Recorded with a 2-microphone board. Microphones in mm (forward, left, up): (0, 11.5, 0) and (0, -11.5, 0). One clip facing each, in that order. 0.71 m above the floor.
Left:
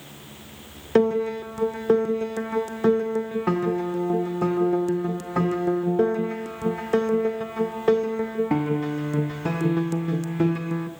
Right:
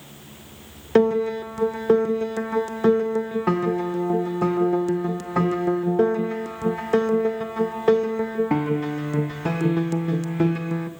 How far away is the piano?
About 0.5 m.